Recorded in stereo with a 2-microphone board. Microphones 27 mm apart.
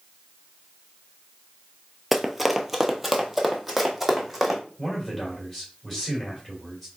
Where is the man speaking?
10° left (ahead or behind), 2.5 m.